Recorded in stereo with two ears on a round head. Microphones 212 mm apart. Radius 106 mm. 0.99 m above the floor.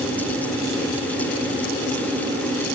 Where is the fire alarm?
I don't hear a fire alarm.